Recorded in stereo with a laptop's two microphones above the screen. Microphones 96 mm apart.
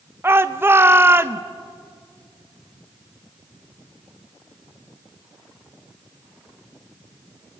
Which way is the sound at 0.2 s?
25° right (ahead or behind).